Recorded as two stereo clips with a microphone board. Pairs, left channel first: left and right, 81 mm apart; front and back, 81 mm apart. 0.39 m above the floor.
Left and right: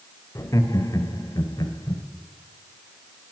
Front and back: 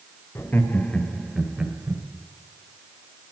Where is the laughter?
50° left, 1.6 m; by 2.0 s 115° left, 1.6 m.